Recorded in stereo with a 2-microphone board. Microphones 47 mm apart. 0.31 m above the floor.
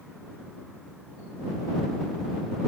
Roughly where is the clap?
I don't hear a clap.